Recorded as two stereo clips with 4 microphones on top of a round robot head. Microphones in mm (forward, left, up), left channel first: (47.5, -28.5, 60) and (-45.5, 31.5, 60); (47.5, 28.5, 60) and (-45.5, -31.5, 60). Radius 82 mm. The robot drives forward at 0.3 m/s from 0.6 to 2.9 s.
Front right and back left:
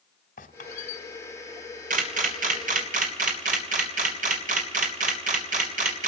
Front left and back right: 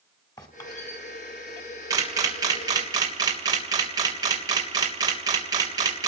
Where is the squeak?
25° right, 2 m.